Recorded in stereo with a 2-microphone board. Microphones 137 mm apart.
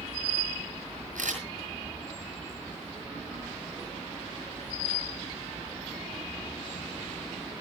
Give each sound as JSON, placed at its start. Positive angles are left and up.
{"t": 1.1, "sound": "a camera shutter", "side_deg": -85, "distance_m": 7.5}